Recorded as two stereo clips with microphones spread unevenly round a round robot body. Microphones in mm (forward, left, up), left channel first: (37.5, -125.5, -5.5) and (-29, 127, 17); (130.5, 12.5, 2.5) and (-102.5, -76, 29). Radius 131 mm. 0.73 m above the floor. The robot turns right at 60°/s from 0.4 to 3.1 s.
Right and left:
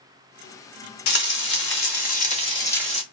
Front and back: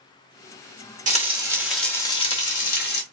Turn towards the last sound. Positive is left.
turn(degrees=20)